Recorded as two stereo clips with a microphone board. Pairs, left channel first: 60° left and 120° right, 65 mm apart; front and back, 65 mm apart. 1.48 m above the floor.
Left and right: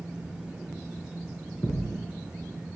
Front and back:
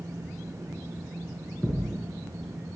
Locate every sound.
1.6 s a thud: 95° left, 2 m